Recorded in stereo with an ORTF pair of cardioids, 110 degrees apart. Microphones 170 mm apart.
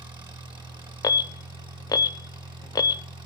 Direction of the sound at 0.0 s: 25° right.